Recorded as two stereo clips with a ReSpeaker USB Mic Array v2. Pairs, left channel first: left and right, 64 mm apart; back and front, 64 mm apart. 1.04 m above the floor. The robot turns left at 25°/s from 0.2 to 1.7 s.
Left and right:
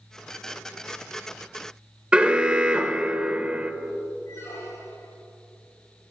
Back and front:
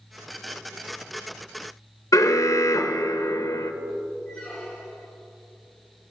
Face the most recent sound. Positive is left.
turn(degrees=90)